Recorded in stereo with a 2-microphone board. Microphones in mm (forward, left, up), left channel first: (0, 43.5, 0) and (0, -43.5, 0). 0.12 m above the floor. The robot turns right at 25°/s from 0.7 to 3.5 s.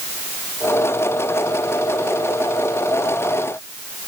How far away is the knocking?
No knocking in this recording.